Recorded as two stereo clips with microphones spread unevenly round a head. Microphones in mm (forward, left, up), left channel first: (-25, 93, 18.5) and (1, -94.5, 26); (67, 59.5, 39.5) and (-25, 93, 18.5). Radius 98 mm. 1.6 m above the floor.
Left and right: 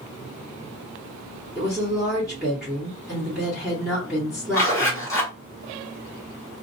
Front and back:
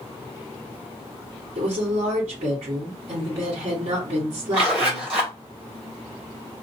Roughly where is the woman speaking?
Behind.